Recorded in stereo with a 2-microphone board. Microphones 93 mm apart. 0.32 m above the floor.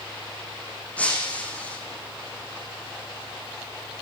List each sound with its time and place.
1.0 s breaking glass: 15° left (ahead or behind), 6.5 m